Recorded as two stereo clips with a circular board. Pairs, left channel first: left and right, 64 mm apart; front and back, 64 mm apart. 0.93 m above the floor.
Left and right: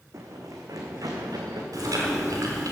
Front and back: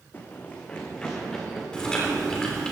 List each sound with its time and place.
0.1 s running footsteps: 55° right, 2.5 m; by 1.6 s 85° right, 4 m
1.7 s chewing: 80° right, 3.5 m